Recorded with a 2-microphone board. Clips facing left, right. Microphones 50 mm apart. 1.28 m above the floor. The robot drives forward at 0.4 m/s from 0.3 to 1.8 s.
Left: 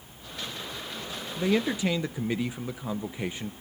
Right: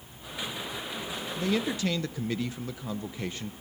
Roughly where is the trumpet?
I don't hear a trumpet.